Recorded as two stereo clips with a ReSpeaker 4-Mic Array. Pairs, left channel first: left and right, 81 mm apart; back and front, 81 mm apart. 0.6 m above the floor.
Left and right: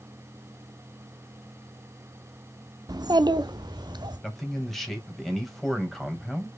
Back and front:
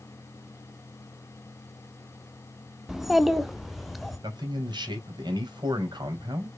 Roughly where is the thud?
No thud in this recording.